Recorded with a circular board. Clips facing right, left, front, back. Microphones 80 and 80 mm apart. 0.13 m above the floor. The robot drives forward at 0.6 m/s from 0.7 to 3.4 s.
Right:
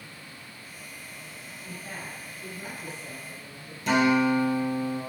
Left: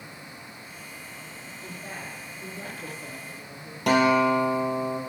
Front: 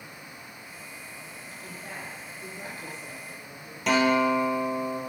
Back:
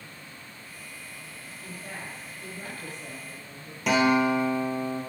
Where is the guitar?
90° left, 1.9 m.